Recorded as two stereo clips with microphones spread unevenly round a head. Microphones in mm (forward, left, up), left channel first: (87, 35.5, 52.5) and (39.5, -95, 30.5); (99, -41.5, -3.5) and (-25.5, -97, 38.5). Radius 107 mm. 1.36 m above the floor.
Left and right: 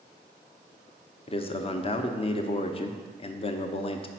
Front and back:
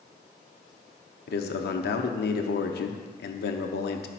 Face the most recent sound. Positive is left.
turn(degrees=30)